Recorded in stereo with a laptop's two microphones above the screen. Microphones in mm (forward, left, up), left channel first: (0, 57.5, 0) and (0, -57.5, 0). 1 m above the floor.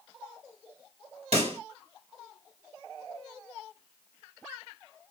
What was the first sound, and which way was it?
A pop, 70° right (ahead or behind).